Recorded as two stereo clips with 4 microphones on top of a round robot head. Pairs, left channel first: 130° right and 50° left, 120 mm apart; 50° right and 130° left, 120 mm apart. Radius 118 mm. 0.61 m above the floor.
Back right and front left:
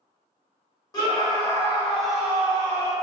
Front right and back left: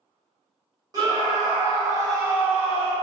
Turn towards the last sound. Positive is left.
turn(degrees=35)